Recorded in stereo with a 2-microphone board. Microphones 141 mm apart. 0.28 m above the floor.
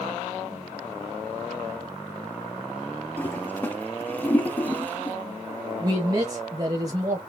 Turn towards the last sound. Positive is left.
turn(degrees=-30)  # may be behind; listen again after turning